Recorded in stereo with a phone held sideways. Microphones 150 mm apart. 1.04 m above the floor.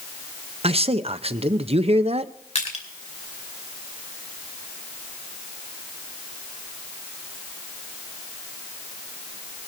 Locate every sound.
0.6 s a man speaking: 45° right (ahead or behind), 0.6 m
2.5 s crushing: 50° left (ahead or behind), 2.5 m